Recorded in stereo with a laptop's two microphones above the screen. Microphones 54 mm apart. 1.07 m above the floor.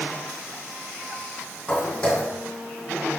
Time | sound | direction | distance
1.7 | footsteps | 15° left (ahead or behind) | 2.5 m